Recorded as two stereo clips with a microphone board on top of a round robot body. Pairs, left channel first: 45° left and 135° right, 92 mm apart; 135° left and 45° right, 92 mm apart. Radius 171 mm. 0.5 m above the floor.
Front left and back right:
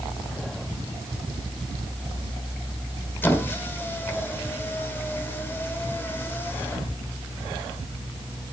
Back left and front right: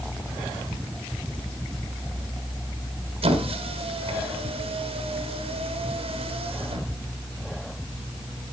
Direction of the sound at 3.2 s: 30° right.